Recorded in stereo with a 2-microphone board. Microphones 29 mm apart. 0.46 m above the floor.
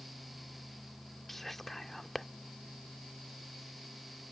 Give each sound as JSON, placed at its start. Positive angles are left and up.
{"t": 1.3, "sound": "whispering", "side_deg": 5}